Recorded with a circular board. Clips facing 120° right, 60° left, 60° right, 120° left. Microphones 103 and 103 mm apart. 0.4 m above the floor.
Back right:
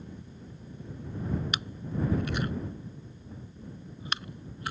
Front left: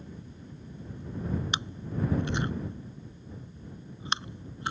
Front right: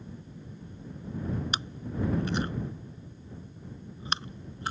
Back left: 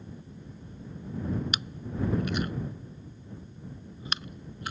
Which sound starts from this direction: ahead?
Chewing, at 1.5 s.